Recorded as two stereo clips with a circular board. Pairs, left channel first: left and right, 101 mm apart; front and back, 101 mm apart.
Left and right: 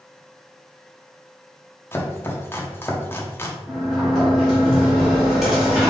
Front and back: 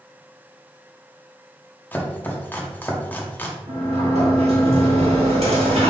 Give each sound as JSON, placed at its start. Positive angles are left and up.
{"t": 1.9, "sound": "chopping", "azimuth_deg": 50, "distance_m": 0.8}
{"t": 3.7, "sound": "a sliding door", "azimuth_deg": -175, "distance_m": 2.0}